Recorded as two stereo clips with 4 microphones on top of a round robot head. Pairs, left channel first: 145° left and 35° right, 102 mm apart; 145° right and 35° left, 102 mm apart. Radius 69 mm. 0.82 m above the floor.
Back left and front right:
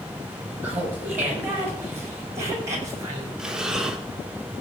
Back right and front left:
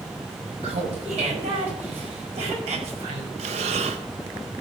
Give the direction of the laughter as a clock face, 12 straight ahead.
11 o'clock.